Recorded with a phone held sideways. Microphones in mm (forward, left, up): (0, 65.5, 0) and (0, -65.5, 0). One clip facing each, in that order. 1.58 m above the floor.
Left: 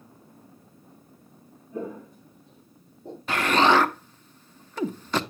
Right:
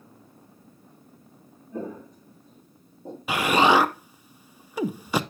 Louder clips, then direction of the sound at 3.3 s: Right 1 dB; 10° right (ahead or behind).